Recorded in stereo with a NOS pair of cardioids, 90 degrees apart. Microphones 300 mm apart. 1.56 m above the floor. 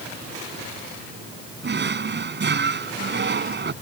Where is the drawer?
35° right.